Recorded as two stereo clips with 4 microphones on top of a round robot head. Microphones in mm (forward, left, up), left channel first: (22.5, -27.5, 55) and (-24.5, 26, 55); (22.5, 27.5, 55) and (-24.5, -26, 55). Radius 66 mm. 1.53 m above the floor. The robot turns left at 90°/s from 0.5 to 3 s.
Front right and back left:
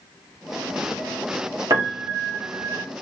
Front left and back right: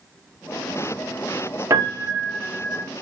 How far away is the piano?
About 0.9 m.